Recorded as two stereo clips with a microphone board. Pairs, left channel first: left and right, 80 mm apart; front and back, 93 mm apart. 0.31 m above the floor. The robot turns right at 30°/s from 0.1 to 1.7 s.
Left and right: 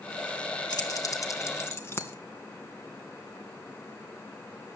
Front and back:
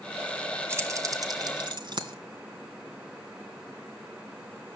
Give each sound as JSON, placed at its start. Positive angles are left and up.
{"t": 0.7, "sound": "keys jangling", "azimuth_deg": 120, "distance_m": 1.9}